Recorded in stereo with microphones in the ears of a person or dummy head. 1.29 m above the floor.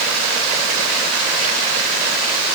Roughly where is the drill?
No drill in this recording.